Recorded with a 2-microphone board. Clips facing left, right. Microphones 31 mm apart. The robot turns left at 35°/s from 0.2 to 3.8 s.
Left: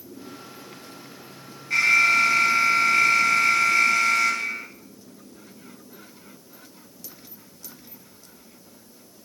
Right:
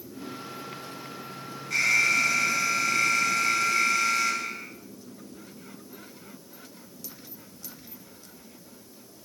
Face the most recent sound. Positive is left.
turn(degrees=80)